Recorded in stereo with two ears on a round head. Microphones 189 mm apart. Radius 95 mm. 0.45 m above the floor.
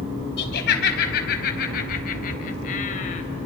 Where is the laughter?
55° left (ahead or behind), 4 m; by 3.2 s 40° left (ahead or behind), 2.5 m.